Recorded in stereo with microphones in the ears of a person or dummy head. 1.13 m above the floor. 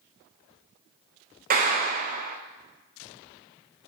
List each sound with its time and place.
1.5 s a clap: 45° right (ahead or behind), 0.9 m